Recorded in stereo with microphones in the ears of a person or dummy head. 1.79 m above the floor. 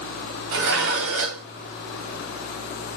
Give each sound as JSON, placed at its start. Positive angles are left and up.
{"t": 0.5, "sound": "dishes clattering", "side_deg": -60, "distance_m": 2.0}